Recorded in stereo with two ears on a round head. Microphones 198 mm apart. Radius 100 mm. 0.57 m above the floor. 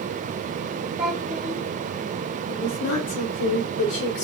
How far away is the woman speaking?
About 3 m.